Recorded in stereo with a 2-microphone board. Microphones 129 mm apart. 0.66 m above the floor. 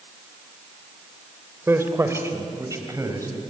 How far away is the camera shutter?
No camera shutter in this recording.